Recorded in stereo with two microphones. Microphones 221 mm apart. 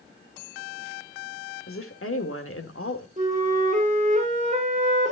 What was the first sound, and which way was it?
A woman speaking, 75° left (ahead or behind).